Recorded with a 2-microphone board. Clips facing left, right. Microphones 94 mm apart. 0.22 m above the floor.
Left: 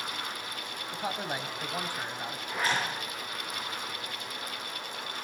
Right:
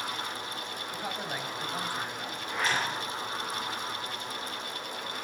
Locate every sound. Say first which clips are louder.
0.9 s a man speaking: left 3 dB; 20° left (ahead or behind), 1.0 m
2.5 s a zipper: even; 5° left (ahead or behind), 8.5 m